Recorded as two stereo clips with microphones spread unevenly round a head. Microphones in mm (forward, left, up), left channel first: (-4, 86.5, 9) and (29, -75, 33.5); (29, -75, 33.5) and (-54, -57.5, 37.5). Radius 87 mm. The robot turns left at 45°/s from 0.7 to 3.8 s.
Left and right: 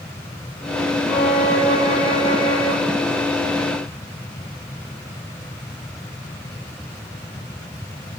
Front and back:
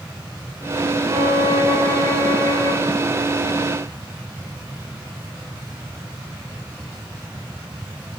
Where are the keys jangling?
I don't hear keys jangling.